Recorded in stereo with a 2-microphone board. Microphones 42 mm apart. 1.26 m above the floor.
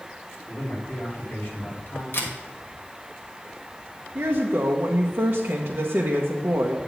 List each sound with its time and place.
0.5 s a man speaking: 35° left (ahead or behind), 3.5 m; by 2.0 s 45° left (ahead or behind), 3.5 m
2.1 s a camera shutter: 55° left (ahead or behind), 1.4 m
4.2 s a woman speaking: 65° right (ahead or behind), 1.0 m